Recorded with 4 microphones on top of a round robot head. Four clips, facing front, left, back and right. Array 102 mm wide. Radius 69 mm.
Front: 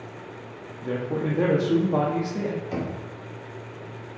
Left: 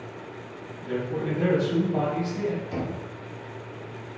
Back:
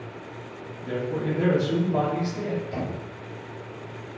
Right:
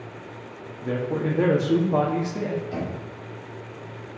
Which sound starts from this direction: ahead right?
A man speaking, at 0.8 s.